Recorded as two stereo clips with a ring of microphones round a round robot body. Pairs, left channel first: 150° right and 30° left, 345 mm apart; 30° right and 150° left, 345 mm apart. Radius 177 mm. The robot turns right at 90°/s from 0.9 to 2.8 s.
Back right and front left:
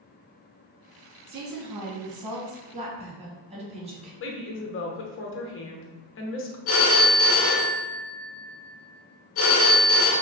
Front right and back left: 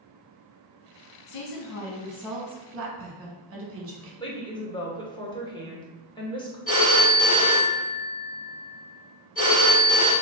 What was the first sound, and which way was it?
A woman speaking, 35° right.